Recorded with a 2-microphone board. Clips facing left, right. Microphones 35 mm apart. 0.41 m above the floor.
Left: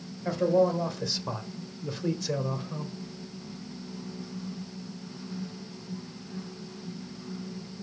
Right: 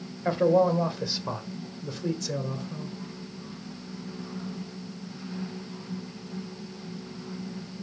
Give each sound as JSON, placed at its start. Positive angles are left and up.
{"t": 0.2, "sound": "a man speaking", "side_deg": -30, "distance_m": 1.4}